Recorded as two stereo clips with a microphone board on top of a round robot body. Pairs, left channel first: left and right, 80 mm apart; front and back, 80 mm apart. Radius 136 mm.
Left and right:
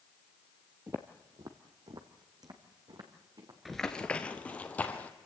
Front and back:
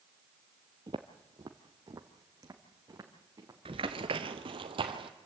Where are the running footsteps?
Straight behind, 0.5 m; by 5.1 s 165° left, 1.7 m.